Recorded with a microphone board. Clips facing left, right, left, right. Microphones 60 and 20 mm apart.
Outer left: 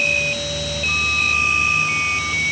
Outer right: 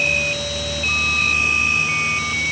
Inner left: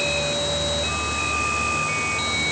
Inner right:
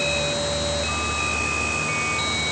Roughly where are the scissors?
I don't hear scissors.